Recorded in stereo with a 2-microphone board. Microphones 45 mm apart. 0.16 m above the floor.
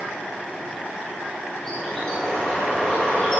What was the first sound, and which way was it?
A bird, 20° left (ahead or behind).